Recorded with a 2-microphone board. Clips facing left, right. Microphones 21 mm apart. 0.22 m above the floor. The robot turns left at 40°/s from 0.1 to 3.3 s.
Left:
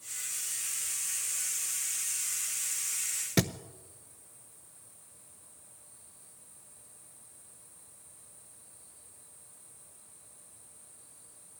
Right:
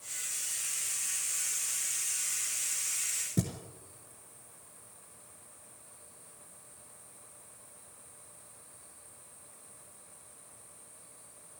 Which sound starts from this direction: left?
A thud, at 3.4 s.